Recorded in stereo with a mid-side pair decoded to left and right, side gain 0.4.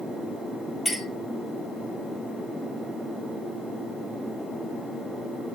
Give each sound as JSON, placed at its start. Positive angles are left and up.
{"t": 0.8, "sound": "a clink", "azimuth_deg": 15, "distance_m": 4.5}